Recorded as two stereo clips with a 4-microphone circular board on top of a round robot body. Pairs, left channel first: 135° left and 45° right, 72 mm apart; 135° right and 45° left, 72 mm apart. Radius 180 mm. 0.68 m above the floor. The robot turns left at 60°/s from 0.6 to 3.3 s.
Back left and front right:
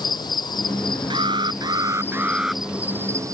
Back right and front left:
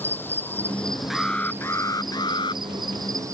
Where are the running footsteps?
I don't hear running footsteps.